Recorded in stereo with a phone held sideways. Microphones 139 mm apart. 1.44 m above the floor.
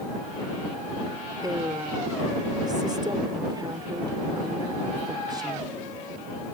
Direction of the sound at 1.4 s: 30° right (ahead or behind).